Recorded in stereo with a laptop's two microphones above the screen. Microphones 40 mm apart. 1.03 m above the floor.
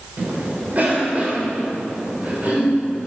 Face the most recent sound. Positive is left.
turn(degrees=-40)  # may be behind; listen again after turning